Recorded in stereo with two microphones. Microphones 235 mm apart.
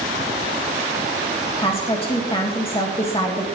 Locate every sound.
1.6 s a woman speaking: 25° left (ahead or behind), 1.8 m